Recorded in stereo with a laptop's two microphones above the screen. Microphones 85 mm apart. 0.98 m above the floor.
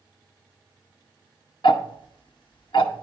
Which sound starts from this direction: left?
Ticking, at 1.6 s.